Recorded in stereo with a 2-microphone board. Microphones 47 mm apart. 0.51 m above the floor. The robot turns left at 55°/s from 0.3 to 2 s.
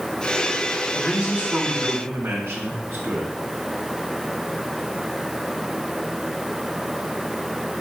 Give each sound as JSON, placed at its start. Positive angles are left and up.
{"t": 0.9, "sound": "a man speaking", "azimuth_deg": -10, "distance_m": 2.5}